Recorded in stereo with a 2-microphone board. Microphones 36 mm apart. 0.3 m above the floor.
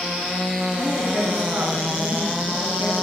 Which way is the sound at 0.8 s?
55° right (ahead or behind).